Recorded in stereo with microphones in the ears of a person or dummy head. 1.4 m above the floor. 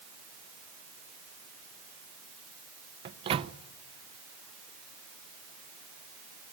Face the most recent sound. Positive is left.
turn(degrees=-30)  # may be behind; listen again after turning